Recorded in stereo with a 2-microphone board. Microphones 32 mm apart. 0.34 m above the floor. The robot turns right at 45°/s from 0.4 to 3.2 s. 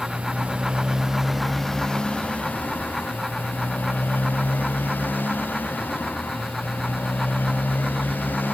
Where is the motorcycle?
45° right; by 8.5 s 80° left.